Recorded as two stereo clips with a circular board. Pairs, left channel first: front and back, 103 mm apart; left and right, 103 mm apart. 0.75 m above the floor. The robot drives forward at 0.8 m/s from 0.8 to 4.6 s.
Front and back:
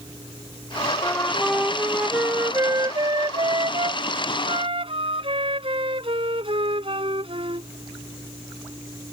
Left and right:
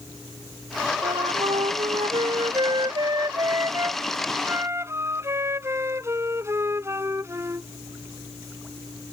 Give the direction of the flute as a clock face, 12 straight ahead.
2 o'clock.